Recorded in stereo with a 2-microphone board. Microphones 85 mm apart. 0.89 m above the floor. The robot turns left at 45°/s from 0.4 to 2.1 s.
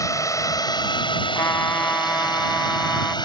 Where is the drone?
40° left (ahead or behind); by 3.2 s 60° left (ahead or behind).